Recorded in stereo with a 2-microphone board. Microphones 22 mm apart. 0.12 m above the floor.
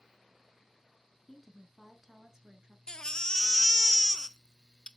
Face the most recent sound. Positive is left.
turn(degrees=35)  # may be behind; listen again after turning